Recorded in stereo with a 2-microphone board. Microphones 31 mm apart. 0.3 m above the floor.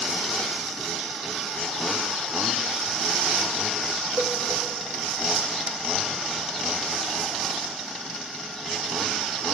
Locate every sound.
4.2 s a cowbell: 50° right (ahead or behind), 0.6 m